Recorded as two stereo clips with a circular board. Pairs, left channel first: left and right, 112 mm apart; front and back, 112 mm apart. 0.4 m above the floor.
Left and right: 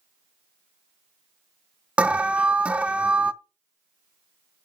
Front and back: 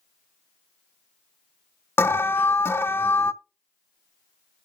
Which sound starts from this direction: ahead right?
An alarm, at 2.0 s.